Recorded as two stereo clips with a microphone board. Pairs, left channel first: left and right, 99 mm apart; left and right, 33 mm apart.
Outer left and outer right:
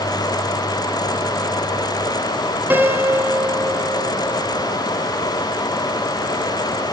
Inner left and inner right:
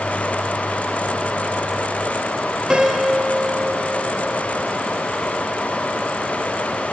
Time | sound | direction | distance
2.7 | a piano | 20° right (ahead or behind) | 3 m